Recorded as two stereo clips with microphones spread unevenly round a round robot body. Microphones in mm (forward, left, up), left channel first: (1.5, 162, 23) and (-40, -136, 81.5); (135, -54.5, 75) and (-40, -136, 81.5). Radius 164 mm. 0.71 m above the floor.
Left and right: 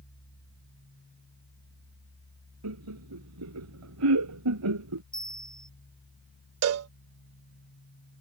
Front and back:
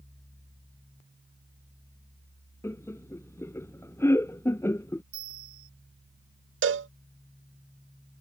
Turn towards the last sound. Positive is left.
turn(degrees=-135)